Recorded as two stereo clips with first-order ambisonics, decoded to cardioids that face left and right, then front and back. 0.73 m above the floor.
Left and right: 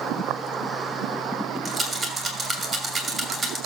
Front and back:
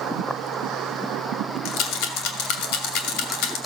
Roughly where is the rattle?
Ahead.